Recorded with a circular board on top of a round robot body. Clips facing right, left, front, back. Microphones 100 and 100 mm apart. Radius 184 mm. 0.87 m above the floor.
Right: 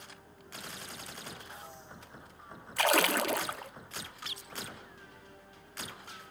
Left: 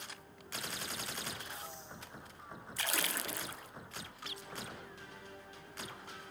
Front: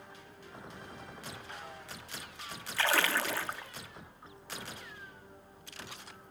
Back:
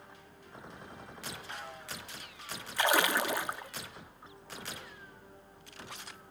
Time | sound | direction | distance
2.8 | a splash | 110° right | 0.7 m